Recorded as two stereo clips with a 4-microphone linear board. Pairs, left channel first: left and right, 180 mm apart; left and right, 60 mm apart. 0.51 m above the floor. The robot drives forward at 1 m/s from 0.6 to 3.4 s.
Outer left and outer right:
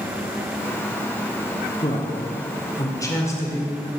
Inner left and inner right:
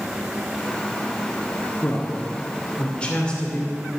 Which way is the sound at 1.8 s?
30° left (ahead or behind).